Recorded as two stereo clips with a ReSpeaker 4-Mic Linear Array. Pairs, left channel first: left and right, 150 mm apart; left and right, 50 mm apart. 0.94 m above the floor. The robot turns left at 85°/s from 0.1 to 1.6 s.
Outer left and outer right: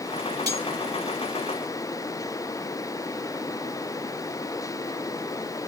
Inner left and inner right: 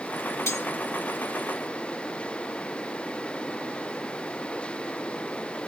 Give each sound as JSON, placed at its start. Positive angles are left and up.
{"t": 0.5, "sound": "cutlery clinking", "side_deg": 85, "distance_m": 1.8}